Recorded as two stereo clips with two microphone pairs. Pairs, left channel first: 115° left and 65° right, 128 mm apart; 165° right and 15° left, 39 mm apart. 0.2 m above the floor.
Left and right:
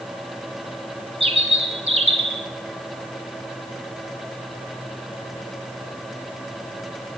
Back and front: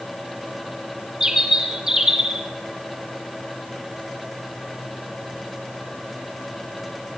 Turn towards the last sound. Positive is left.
turn(degrees=-55)